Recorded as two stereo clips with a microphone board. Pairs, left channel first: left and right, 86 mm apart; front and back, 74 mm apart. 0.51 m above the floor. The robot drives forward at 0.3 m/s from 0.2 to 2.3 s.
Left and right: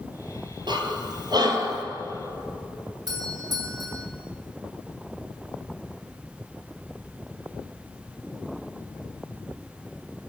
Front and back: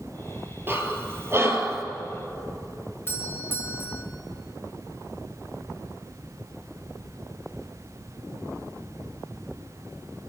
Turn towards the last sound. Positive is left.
turn(degrees=-55)